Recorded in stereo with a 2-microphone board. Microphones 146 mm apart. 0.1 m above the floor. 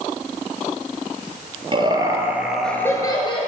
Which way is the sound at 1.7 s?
35° right (ahead or behind).